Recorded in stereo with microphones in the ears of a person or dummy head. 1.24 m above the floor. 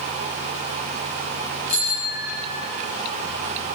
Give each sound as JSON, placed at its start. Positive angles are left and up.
{"t": 1.7, "sound": "a bicycle bell", "side_deg": 50, "distance_m": 9.0}